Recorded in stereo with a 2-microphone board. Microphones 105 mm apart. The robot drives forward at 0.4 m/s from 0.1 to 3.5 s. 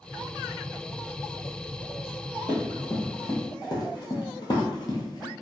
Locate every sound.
2.5 s running footsteps: 45° left (ahead or behind), 1.8 m